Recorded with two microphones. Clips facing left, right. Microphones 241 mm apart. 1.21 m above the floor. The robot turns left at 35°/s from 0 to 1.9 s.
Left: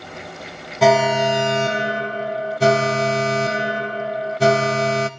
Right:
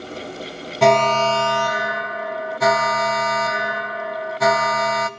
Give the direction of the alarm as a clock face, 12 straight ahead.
6 o'clock.